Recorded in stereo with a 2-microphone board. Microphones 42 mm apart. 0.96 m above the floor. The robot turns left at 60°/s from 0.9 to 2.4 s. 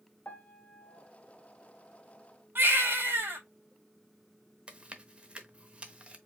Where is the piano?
40° left (ahead or behind), 0.9 m; by 1.1 s 35° left (ahead or behind), 0.9 m.